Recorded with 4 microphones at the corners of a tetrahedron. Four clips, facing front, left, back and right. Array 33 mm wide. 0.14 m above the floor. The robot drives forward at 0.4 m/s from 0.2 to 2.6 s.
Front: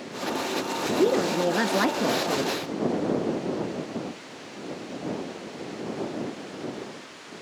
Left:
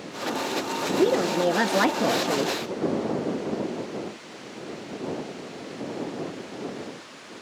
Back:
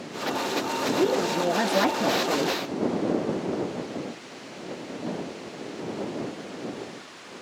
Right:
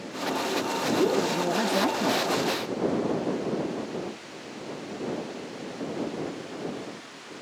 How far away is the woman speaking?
About 1.9 m.